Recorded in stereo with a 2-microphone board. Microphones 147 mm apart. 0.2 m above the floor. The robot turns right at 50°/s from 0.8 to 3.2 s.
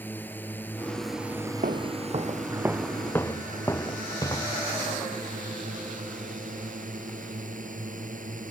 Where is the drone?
165° left; by 8.5 s 75° right.